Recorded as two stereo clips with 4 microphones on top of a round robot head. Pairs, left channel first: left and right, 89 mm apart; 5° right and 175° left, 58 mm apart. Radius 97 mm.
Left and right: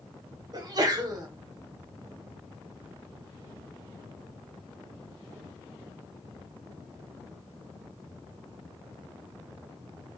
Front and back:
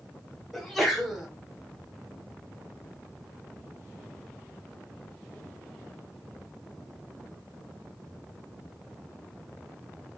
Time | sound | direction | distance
0.5 | a sneeze | 90° right | 1.0 m